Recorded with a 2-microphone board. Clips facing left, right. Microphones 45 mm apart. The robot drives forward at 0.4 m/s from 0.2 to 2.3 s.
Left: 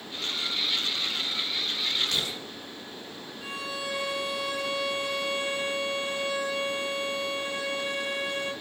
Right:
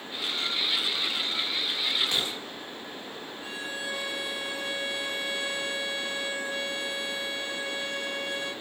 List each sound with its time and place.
2.1 s an explosion: 25° right (ahead or behind), 0.6 m; by 2.5 s 20° right (ahead or behind), 0.6 m
3.4 s a violin: 75° left (ahead or behind), 0.7 m